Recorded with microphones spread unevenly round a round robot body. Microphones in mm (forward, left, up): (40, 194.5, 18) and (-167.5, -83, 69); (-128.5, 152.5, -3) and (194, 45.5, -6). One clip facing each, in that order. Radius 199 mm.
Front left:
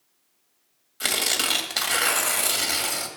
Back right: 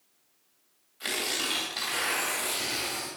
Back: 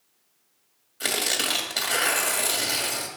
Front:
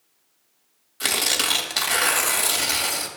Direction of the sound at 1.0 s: 55° left.